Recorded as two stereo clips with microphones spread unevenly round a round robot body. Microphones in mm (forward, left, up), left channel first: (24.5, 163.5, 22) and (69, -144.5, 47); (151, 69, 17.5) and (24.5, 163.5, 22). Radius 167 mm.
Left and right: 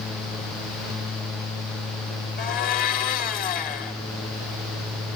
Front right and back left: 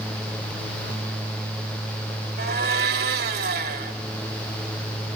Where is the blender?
165° left, 0.7 m.